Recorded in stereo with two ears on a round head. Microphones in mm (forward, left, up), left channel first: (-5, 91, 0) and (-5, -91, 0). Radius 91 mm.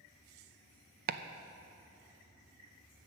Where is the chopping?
45° right (ahead or behind), 0.5 m.